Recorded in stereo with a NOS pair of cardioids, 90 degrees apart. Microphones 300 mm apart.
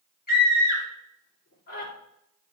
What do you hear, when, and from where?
0.3 s a scream: 30° left, 3.5 m